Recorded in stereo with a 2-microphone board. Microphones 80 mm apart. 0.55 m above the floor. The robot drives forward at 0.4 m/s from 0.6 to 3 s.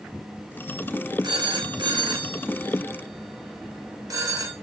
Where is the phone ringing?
60° right (ahead or behind), 0.6 m; by 4.5 s 50° right (ahead or behind), 0.7 m.